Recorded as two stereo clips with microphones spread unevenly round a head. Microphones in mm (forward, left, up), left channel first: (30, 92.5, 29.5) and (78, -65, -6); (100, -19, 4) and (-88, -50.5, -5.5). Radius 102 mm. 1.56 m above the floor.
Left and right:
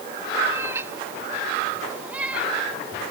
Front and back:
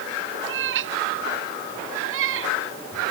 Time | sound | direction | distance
0.5 | a cat meowing | 155° right | ?